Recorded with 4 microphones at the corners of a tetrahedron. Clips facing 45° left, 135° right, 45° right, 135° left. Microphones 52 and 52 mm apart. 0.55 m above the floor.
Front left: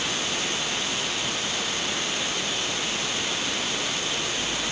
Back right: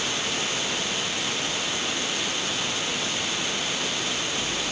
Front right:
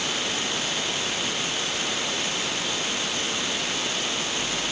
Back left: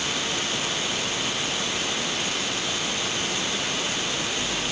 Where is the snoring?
No snoring in this recording.